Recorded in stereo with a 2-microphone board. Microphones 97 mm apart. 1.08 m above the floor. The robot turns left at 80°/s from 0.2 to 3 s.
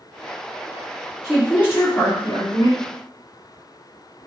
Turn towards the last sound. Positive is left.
turn(degrees=50)